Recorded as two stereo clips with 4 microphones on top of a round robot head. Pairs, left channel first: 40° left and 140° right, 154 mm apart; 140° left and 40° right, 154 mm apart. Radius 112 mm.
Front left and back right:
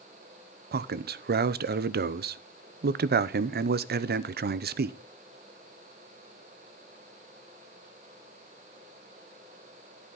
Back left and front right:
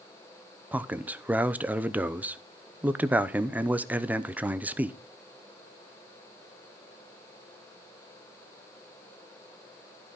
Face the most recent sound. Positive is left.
turn(degrees=-120)